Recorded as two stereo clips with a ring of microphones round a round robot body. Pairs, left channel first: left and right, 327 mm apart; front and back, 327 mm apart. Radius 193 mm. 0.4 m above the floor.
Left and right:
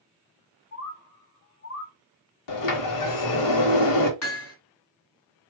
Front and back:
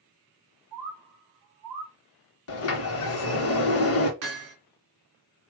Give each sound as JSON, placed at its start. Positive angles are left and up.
{"t": 0.7, "sound": "a bird", "azimuth_deg": 145, "distance_m": 0.8}
{"t": 2.5, "sound": "a sliding door", "azimuth_deg": 55, "distance_m": 0.7}
{"t": 4.2, "sound": "hammering", "azimuth_deg": 135, "distance_m": 2.0}